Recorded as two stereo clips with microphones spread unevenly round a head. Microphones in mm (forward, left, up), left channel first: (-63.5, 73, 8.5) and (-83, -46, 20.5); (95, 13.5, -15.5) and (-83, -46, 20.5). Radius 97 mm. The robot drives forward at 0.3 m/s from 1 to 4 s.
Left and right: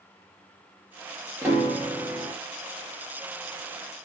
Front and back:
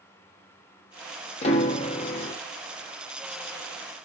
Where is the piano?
30° right, 1.1 m; by 2.4 s 50° right, 0.9 m.